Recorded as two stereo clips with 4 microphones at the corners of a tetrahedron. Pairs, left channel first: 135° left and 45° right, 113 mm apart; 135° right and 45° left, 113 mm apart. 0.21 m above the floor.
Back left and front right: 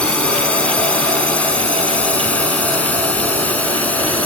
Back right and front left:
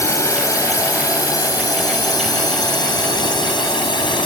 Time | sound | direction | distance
0.0 | a drone | 155° right | ?